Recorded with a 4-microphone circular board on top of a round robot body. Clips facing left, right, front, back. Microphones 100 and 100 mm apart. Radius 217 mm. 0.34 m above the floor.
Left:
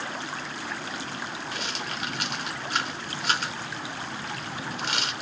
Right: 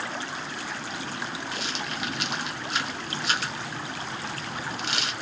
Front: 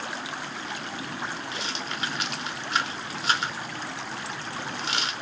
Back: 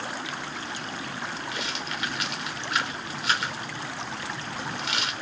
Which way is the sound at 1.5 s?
55° left.